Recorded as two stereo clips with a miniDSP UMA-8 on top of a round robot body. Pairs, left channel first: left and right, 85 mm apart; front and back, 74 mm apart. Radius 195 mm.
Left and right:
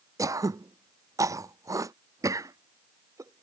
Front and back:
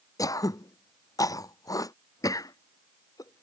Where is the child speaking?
No child speaking in this recording.